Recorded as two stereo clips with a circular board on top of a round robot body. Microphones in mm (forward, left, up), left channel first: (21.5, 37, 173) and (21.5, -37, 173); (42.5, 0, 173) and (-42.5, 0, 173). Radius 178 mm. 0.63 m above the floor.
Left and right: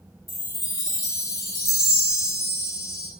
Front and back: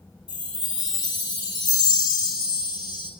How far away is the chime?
About 2.5 m.